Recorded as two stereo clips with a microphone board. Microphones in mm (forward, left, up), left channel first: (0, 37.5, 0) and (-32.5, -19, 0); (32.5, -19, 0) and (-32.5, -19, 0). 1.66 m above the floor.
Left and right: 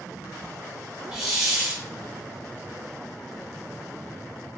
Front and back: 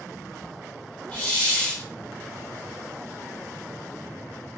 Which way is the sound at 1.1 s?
40° right.